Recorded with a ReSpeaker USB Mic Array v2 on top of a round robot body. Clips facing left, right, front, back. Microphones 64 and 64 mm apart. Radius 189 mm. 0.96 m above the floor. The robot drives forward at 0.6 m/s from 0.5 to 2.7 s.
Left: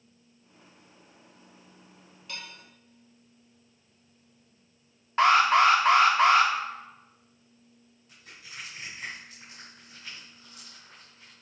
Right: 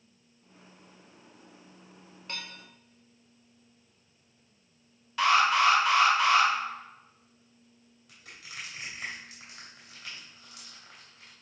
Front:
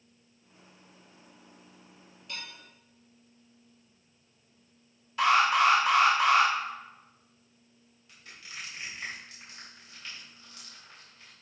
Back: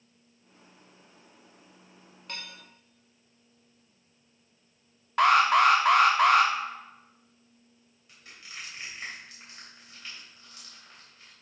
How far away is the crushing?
About 3 m.